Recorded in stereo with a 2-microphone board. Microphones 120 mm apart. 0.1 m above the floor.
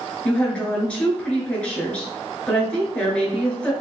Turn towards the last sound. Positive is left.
turn(degrees=10)  # may be behind; listen again after turning